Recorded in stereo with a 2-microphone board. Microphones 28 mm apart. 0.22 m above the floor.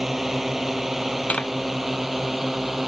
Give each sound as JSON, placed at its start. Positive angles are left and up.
{"t": 0.0, "sound": "a drone", "side_deg": -10}
{"t": 1.3, "sound": "tapping", "side_deg": 50}